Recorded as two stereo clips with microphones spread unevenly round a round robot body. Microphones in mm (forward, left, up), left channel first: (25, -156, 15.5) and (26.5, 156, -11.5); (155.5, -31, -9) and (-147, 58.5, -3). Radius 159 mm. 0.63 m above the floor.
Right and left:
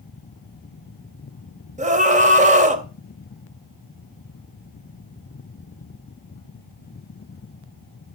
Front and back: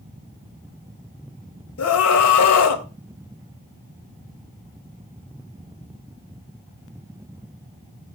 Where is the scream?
25° left, 3 m.